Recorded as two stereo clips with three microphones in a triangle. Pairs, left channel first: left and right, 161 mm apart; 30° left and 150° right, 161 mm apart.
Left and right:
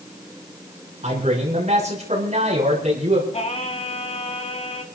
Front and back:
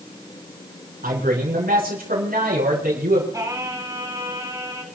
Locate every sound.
1.0 s a man speaking: 130° right, 6 m
3.3 s singing: 140° left, 1.5 m